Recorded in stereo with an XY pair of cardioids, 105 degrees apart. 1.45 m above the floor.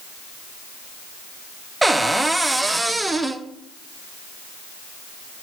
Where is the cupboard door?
10° right, 0.7 m.